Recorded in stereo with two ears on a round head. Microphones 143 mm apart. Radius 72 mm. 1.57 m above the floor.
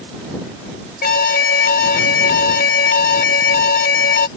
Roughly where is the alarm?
Left.